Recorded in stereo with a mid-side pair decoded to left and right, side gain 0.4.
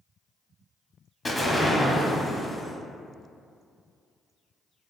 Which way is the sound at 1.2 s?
30° left.